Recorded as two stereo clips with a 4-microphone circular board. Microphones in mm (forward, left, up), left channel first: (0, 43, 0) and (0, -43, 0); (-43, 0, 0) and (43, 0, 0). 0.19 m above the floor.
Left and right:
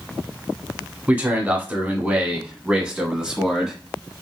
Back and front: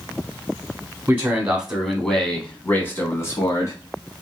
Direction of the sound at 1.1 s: 45° right.